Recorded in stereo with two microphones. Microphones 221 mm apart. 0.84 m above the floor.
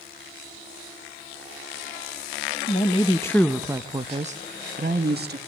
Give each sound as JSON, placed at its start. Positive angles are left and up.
{"t": 2.7, "sound": "a woman speaking", "side_deg": 35, "distance_m": 0.9}